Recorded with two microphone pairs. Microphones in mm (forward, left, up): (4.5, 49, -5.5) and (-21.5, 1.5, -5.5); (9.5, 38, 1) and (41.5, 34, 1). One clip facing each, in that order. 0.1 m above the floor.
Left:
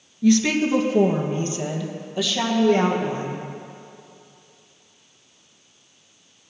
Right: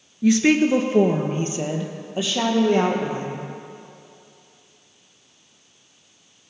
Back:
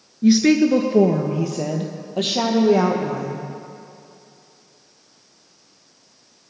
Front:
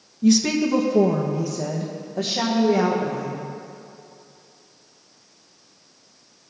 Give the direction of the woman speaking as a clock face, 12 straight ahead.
5 o'clock.